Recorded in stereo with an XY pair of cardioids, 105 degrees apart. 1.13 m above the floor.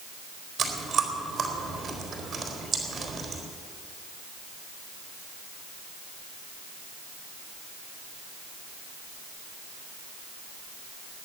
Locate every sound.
0.6 s chewing: 45° right, 4 m